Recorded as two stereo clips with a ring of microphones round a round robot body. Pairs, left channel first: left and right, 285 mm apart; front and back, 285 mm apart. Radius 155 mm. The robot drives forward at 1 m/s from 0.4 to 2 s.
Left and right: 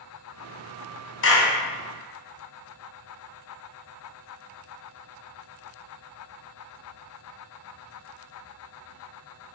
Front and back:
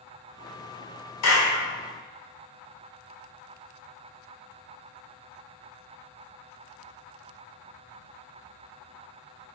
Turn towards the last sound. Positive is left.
turn(degrees=55)